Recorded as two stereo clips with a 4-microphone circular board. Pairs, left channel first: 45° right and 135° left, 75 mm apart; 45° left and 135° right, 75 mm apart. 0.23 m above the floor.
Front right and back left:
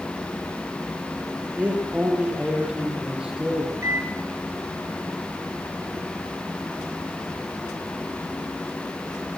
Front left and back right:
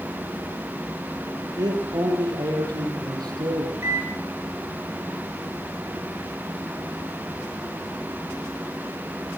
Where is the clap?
I don't hear a clap.